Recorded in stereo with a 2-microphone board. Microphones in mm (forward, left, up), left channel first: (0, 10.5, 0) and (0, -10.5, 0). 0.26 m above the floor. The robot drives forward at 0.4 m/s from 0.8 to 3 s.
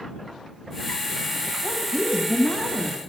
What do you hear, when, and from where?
1.6 s a woman speaking: 40° left (ahead or behind), 1.6 m; by 3.0 s 35° left (ahead or behind), 1.9 m